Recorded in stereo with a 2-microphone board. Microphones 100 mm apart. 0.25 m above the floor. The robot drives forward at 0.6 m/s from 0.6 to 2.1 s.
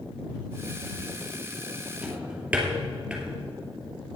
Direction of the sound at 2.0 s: 10° right (ahead or behind).